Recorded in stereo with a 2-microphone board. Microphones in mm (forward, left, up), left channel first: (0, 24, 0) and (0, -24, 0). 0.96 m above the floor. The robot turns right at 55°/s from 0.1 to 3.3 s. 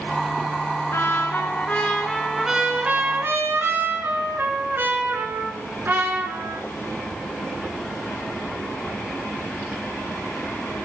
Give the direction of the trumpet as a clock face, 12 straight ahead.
8 o'clock.